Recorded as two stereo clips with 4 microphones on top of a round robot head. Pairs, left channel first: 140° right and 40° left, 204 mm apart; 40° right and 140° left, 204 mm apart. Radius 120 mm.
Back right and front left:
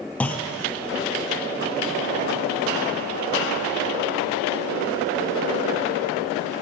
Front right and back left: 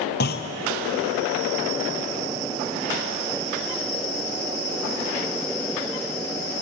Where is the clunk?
55° right, 0.7 m.